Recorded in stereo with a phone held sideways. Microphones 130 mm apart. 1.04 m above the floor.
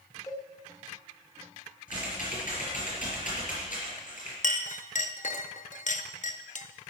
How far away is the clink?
About 0.7 m.